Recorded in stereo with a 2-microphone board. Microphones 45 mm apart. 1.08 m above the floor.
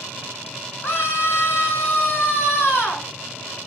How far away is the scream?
About 2.5 m.